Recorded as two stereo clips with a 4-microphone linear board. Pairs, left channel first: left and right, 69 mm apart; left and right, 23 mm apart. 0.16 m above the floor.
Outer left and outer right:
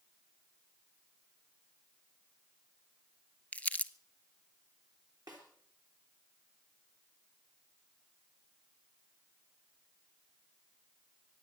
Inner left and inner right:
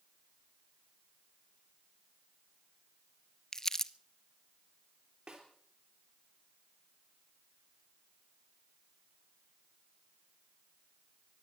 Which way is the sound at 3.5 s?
20° left (ahead or behind).